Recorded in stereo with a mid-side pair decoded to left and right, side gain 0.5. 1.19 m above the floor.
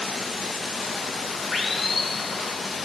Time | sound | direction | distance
0.0 | running water | 30° left | 0.9 m